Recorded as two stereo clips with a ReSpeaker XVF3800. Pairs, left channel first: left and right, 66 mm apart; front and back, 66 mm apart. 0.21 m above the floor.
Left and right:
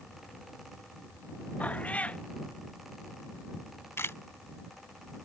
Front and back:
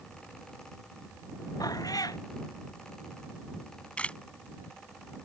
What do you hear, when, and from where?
1.6 s a cat meowing: 20° left
3.5 s a camera shutter: 60° left